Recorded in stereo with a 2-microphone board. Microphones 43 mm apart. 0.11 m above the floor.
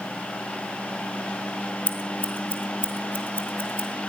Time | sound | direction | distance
1.9 | scissors | 40° left (ahead or behind) | 2 m